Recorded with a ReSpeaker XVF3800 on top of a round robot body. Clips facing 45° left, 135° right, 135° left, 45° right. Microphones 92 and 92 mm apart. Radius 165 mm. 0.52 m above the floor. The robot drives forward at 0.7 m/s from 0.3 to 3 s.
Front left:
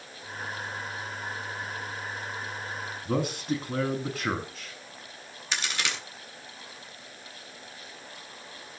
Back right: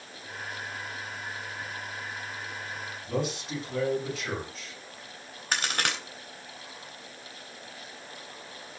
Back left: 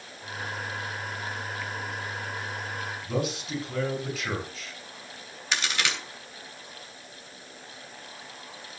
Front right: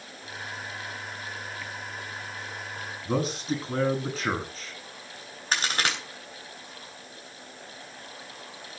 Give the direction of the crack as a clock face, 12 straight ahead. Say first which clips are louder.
Back right 3 dB, front right 2 dB; 3 o'clock.